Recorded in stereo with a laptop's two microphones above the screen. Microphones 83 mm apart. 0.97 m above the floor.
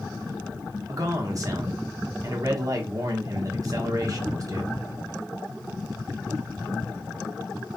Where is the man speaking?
45° right (ahead or behind), 1.0 m.